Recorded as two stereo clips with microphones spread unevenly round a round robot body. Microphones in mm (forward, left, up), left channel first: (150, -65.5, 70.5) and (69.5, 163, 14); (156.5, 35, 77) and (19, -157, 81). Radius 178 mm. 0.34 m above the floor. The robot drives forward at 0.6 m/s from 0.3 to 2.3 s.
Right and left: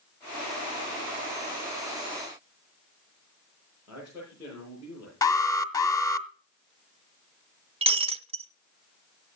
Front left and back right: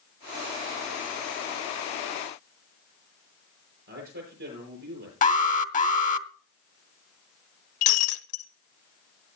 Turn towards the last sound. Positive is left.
turn(degrees=40)